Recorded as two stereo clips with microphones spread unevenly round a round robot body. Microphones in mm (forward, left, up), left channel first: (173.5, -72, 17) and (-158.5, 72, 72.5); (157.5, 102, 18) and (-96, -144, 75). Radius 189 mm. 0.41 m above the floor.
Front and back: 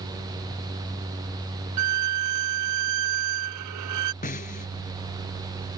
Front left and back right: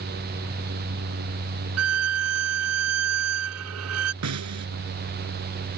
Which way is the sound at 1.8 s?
Straight behind.